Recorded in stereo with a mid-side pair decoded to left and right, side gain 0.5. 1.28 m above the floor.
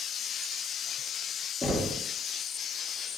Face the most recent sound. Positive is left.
turn(degrees=15)